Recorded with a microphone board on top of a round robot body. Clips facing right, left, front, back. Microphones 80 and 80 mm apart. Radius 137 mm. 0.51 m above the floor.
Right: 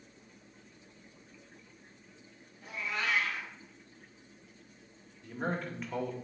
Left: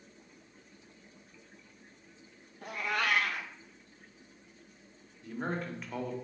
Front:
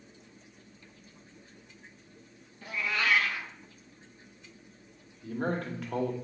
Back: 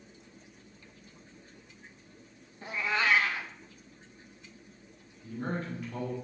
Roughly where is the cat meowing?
Behind left.